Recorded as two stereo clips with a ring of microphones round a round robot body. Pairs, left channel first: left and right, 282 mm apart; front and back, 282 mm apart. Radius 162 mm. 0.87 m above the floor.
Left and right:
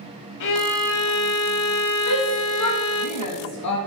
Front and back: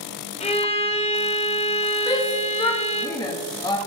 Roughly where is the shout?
Left.